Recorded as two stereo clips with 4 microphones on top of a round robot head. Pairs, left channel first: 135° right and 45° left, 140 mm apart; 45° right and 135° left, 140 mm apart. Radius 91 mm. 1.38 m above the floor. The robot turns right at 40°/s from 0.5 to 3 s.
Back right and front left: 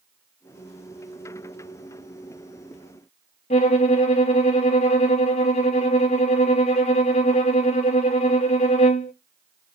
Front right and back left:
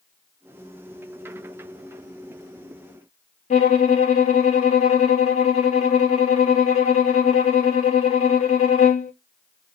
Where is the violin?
85° right, 0.7 m.